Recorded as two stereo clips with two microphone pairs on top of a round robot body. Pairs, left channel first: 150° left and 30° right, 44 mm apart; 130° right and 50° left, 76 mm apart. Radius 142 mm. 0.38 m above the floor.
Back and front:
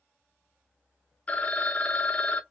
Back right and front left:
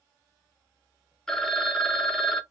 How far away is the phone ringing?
About 0.8 m.